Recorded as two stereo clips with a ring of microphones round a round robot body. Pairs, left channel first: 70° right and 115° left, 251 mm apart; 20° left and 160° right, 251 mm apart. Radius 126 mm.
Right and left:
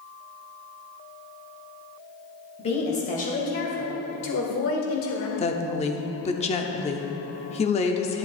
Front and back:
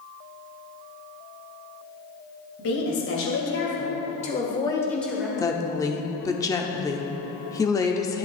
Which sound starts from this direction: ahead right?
A woman speaking, at 5.4 s.